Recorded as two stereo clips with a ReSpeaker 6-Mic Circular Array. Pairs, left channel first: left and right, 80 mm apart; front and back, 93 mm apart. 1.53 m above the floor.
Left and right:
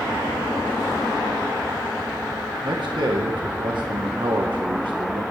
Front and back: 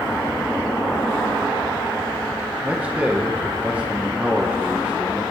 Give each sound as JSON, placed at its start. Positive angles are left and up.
{"t": 2.6, "sound": "a man speaking", "azimuth_deg": -105, "distance_m": 1.5}